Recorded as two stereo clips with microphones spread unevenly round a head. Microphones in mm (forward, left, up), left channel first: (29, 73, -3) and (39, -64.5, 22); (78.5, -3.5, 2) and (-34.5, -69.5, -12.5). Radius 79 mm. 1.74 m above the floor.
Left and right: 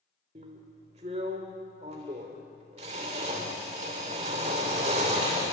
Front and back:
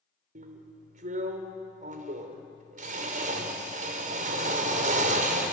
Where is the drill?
130° right, 3 m.